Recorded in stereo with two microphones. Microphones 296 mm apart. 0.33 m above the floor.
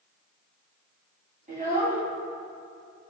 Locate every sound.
1.5 s a child speaking: 25° right (ahead or behind), 2 m